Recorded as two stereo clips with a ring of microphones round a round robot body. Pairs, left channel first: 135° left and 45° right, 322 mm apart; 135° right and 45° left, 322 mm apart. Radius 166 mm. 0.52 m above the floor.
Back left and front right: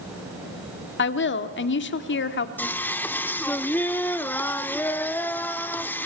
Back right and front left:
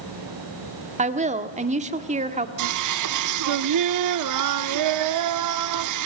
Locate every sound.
1.0 s a woman speaking: 105° left, 1.4 m
2.6 s singing: 50° left, 0.7 m